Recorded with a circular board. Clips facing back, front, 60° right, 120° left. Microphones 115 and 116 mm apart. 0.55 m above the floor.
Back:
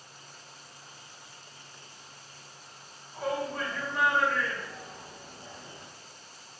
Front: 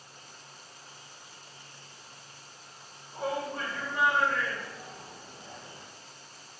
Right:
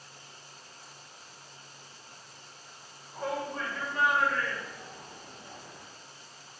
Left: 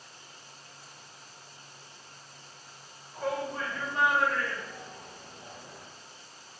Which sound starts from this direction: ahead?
A shout, at 3.1 s.